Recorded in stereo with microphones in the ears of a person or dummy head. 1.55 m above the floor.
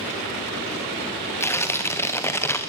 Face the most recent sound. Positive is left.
turn(degrees=10)  # may be behind; listen again after turning